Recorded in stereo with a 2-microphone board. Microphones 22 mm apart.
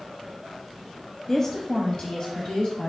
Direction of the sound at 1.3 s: 15° left (ahead or behind).